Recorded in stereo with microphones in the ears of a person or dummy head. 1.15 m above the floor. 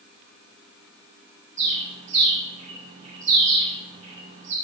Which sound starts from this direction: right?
A bird, at 1.6 s.